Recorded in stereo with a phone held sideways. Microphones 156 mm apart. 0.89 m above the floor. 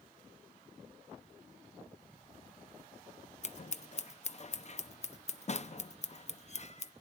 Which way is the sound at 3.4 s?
45° left (ahead or behind).